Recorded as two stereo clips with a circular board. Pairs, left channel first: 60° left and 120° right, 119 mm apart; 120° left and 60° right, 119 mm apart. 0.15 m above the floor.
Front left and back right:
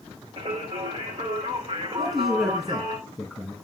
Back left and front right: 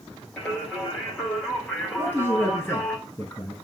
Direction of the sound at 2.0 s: 155° left.